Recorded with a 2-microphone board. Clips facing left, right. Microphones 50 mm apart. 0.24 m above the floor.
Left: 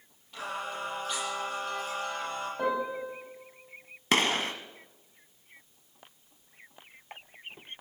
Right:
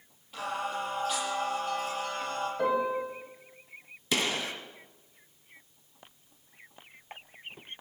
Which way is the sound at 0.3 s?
5° right (ahead or behind).